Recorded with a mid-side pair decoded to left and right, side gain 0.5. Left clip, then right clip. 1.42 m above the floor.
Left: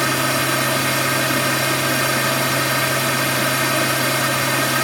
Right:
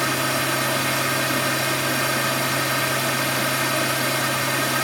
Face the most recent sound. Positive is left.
turn(degrees=20)